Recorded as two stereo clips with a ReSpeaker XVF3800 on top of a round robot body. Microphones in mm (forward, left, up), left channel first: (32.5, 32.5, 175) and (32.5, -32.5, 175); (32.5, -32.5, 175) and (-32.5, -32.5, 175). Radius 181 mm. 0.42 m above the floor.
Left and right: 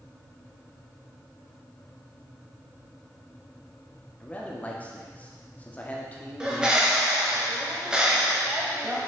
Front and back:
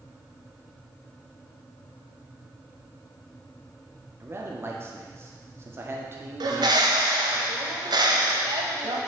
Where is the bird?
170° right, 0.8 m.